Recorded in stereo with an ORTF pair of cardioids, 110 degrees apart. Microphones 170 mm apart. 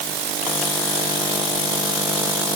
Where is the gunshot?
No gunshot in this recording.